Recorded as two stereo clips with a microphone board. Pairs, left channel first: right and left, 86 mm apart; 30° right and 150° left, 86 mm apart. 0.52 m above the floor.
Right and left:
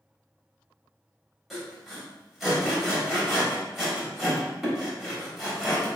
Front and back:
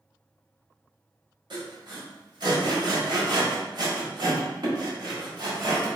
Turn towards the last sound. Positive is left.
turn(degrees=180)